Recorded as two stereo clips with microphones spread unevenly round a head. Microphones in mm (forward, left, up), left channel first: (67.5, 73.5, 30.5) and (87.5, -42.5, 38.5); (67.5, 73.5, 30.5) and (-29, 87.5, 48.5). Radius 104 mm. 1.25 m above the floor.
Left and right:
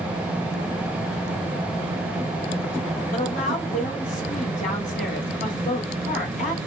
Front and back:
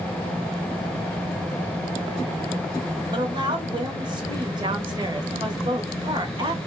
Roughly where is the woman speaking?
Behind left.